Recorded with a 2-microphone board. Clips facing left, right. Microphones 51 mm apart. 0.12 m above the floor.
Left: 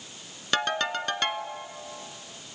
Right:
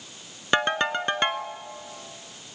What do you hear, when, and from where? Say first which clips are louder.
0.5 s a ringtone: right 4 dB; 20° right (ahead or behind), 0.9 m